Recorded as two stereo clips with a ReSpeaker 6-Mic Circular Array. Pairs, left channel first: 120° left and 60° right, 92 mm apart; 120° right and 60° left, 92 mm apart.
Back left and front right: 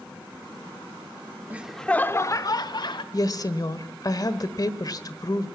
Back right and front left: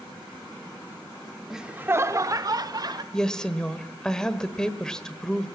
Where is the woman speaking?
160° left, 1.3 m.